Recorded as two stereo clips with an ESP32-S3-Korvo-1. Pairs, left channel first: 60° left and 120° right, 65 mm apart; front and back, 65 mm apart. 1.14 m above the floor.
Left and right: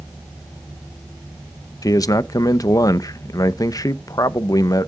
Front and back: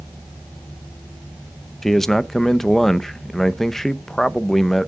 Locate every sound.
1.8 s a man speaking: 85° left, 0.6 m